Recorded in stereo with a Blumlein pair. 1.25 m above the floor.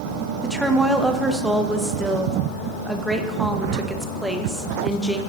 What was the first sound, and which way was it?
A woman speaking, 5° right.